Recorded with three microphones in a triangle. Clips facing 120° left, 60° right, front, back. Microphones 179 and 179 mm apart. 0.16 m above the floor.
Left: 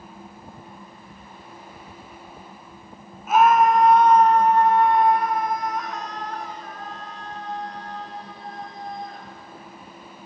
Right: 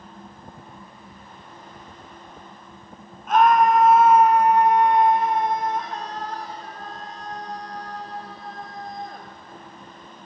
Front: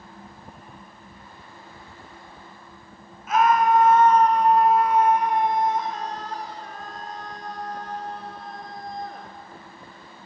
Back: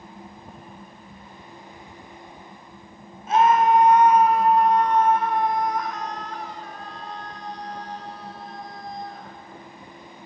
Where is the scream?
165° right, 1.3 m; by 9.3 s 20° right, 3 m.